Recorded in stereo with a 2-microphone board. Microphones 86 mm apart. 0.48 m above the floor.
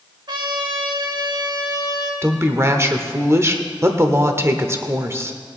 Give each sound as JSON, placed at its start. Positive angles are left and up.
{"t": 0.3, "sound": "a trumpet", "side_deg": -60, "distance_m": 2.0}
{"t": 2.2, "sound": "a woman speaking", "side_deg": -30, "distance_m": 1.1}